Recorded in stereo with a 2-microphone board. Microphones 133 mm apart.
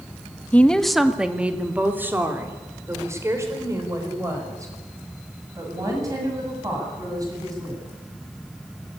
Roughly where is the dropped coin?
I don't hear a dropped coin.